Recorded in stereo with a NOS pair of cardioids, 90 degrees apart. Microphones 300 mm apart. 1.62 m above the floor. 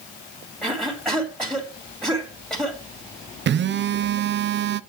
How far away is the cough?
About 2.5 m.